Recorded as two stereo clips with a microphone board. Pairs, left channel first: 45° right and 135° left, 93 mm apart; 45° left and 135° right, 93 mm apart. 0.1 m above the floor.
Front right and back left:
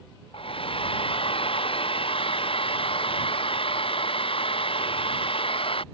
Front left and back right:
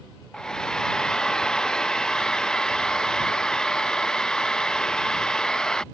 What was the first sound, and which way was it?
A hair dryer, 40° right.